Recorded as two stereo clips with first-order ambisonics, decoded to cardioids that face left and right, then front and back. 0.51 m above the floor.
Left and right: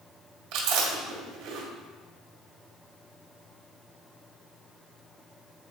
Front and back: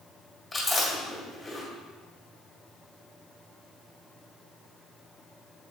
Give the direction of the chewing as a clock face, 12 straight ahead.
3 o'clock.